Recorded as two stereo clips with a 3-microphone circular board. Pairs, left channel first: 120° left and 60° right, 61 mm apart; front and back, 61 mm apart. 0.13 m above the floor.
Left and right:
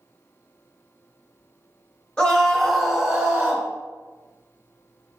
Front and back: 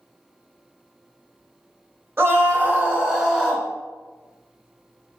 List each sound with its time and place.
2.2 s a scream: 175° right, 1.5 m; by 3.7 s 85° right, 1.3 m